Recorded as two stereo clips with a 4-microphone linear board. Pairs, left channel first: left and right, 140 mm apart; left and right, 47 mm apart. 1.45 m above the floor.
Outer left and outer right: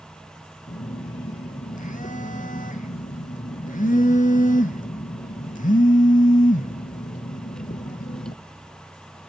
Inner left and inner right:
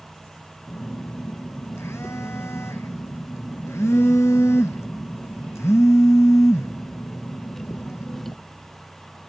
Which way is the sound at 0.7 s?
70° left (ahead or behind).